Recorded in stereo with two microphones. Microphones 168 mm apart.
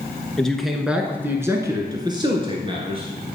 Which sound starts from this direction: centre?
A man speaking, at 0.4 s.